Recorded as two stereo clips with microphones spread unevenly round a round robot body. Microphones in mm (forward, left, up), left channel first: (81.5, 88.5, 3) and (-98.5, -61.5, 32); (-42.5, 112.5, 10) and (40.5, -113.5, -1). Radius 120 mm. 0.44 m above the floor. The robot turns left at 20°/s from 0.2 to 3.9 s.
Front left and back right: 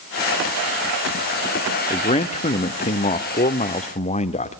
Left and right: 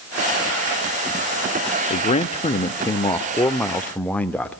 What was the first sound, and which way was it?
A man speaking, 65° left.